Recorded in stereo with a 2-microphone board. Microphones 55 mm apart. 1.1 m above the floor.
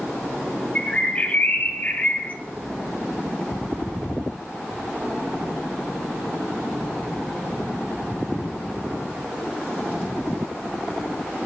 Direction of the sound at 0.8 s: 30° left (ahead or behind).